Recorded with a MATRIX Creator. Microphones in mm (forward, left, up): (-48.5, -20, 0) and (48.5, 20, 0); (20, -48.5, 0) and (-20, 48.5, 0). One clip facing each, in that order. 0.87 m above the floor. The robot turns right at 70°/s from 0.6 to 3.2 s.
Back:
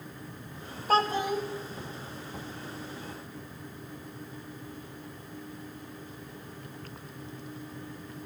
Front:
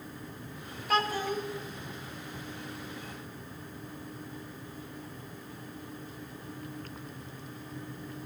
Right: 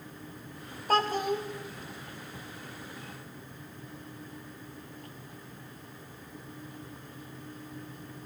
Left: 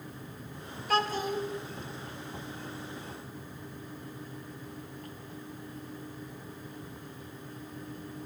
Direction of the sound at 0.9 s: 110° right.